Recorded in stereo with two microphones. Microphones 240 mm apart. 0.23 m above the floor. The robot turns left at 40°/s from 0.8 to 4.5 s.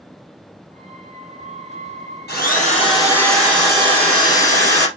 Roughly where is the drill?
Ahead left.